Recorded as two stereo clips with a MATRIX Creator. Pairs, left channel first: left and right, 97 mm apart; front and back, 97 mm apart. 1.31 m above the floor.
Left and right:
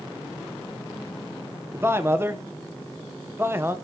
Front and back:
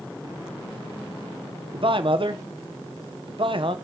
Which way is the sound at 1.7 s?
155° right.